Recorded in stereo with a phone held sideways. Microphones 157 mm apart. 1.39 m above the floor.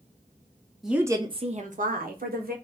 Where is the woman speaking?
Centre (ahead or behind), 0.6 m; by 2.5 s 75° right (ahead or behind), 1.1 m.